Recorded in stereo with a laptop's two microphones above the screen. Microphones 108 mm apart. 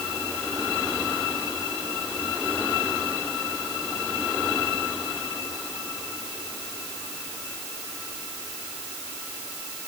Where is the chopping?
I don't hear chopping.